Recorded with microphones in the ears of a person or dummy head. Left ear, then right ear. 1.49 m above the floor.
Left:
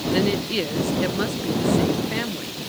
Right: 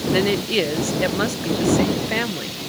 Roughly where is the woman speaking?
Right.